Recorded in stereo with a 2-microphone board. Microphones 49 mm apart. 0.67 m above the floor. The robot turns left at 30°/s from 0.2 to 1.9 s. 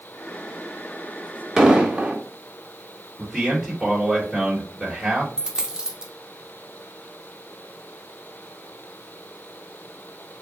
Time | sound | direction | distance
1.6 | an explosion | 10° right (ahead or behind) | 0.7 m
3.2 | a man speaking | 5° right (ahead or behind) | 1.2 m
5.4 | a dropped coin | 15° right (ahead or behind) | 0.5 m